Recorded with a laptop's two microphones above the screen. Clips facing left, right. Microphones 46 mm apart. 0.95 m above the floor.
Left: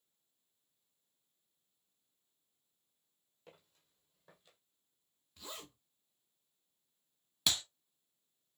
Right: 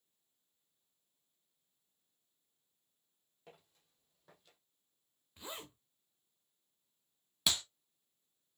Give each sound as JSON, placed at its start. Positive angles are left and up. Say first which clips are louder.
{"t": 3.5, "sound": "footsteps", "louder": "right 1 dB", "side_deg": -5, "distance_m": 2.0}
{"t": 5.4, "sound": "a zipper", "louder": "right 2 dB", "side_deg": -20, "distance_m": 0.7}
{"t": 7.5, "sound": "a clap", "louder": "even", "side_deg": -5, "distance_m": 0.7}